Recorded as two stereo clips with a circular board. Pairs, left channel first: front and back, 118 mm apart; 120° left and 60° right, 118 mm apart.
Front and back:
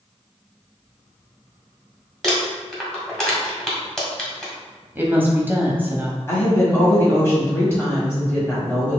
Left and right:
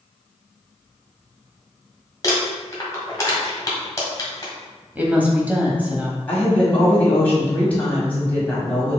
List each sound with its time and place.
2.2 s crumpling: 85° left, 1.6 m
5.0 s a woman speaking: 125° right, 1.0 m
6.3 s a woman speaking: 50° left, 1.6 m